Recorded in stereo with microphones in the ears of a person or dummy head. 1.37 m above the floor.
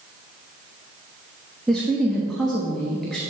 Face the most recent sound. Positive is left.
turn(degrees=0)  # may be behind; listen again after turning